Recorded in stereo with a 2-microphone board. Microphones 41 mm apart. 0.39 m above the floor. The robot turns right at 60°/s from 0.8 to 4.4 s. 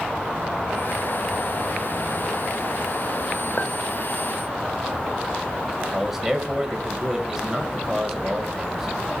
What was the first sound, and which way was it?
A clink, 40° left (ahead or behind).